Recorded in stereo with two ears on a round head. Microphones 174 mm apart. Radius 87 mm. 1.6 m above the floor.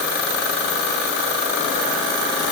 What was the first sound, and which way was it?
Only background noise.